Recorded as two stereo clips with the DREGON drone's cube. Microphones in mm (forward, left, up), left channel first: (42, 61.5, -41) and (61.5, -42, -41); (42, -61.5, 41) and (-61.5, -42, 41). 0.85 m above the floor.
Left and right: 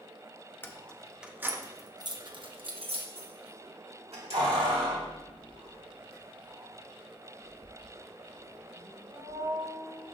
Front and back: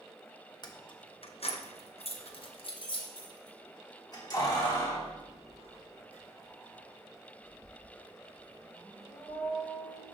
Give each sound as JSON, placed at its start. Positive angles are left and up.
{"t": 0.6, "sound": "keys jangling", "azimuth_deg": 30, "distance_m": 0.7}